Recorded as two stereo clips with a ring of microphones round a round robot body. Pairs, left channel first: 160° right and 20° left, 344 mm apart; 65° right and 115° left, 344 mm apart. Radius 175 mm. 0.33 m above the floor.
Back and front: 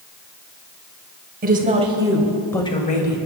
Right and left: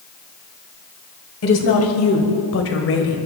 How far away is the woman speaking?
About 2.5 m.